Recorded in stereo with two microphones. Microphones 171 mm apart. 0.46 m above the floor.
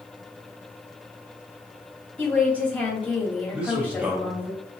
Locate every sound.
2.2 s a woman speaking: 10° left (ahead or behind), 3 m
3.5 s a man speaking: 5° right (ahead or behind), 1.6 m